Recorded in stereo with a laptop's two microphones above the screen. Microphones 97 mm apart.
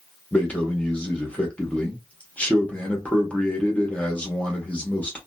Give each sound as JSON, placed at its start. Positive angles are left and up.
{"t": 0.3, "sound": "a man speaking", "side_deg": 15, "distance_m": 1.1}